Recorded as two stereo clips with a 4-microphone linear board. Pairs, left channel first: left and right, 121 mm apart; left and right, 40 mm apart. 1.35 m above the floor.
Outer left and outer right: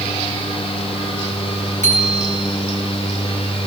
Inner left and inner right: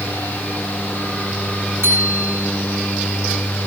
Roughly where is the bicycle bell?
Right.